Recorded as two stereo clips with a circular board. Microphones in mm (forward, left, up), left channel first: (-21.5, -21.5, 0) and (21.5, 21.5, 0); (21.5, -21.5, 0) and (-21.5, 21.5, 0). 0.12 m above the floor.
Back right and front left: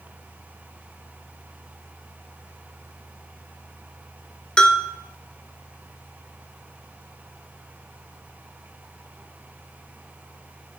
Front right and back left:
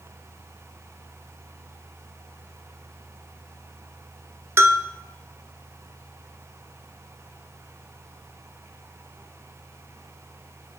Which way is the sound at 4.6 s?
155° left.